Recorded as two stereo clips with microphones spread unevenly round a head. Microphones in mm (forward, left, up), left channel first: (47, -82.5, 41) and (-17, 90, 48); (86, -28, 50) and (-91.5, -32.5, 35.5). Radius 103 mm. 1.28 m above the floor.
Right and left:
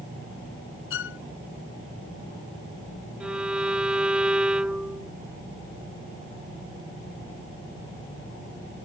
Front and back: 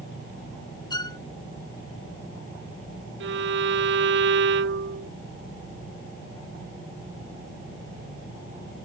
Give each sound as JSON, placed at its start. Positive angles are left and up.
{"t": 0.9, "sound": "a violin", "azimuth_deg": -65}
{"t": 3.2, "sound": "a violin", "azimuth_deg": -165}